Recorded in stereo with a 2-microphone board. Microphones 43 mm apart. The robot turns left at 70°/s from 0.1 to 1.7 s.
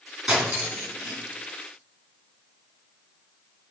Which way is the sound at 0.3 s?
25° right (ahead or behind).